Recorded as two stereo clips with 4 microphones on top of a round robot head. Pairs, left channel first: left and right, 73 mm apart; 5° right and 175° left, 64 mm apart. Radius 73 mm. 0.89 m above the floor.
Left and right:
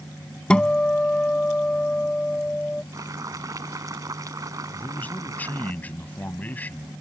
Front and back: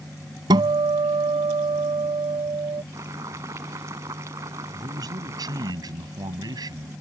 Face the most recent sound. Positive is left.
turn(degrees=160)